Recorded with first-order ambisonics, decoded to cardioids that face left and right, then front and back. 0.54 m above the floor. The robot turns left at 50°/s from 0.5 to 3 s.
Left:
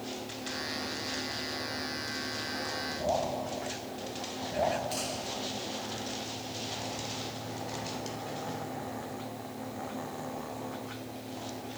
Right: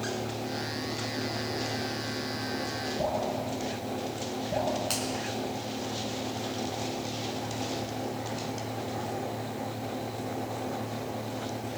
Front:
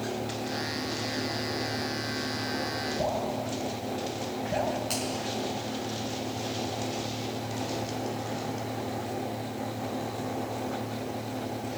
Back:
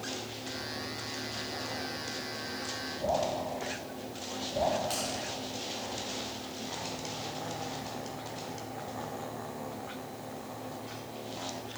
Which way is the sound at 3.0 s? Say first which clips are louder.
Even, back 2 dB; 35° right.